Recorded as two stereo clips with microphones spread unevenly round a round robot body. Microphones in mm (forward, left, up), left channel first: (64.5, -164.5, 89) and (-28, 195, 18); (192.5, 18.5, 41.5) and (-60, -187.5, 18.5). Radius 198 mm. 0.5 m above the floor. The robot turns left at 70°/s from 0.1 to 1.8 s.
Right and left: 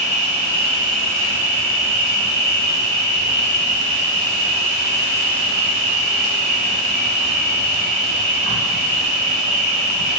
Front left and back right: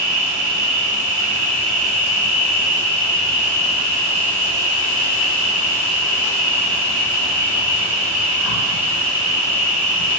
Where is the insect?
160° left, 0.7 m; by 10.2 s 40° left, 0.7 m.